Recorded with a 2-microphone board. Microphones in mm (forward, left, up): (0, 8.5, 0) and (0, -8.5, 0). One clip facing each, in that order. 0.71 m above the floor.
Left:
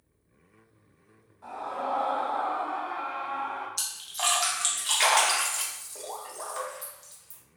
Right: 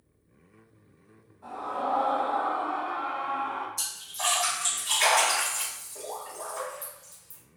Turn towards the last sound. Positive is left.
turn(degrees=45)  # may be behind; listen again after turning